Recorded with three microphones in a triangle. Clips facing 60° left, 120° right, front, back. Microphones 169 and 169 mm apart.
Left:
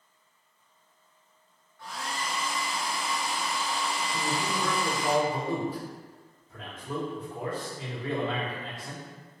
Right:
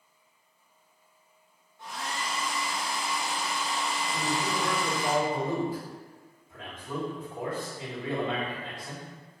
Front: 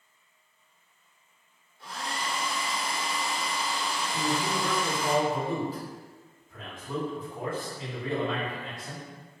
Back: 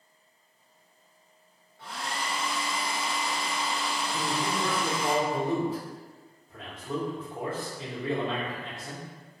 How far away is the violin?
No violin in this recording.